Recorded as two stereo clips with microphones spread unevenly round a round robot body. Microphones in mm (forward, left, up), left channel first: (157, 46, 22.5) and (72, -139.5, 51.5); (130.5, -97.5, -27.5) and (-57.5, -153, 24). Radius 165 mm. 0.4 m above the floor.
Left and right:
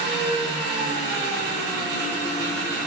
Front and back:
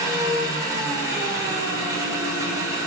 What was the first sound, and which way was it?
An engine running, 80° right.